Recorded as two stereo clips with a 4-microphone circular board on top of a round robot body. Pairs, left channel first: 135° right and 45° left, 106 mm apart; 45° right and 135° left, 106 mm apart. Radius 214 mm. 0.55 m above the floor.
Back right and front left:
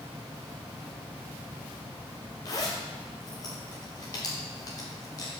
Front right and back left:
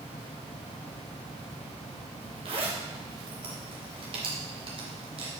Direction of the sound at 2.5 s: 170° left.